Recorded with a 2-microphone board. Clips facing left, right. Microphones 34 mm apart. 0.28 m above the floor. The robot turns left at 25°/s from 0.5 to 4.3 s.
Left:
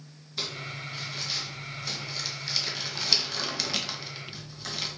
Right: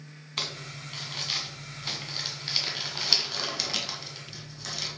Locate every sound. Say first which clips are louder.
0.4 s crumpling: even; 60° right (ahead or behind), 1.7 m; by 4.9 s 15° left (ahead or behind), 1.7 m